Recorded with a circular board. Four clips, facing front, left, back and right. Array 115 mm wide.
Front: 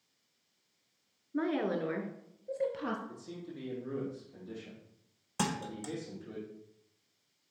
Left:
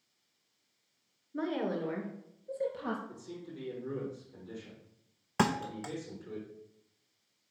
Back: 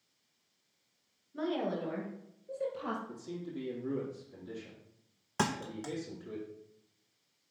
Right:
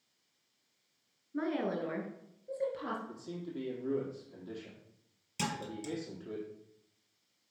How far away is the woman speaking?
About 1.3 m.